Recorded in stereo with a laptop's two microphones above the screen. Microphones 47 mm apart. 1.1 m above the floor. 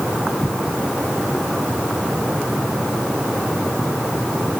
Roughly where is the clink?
No clink in this recording.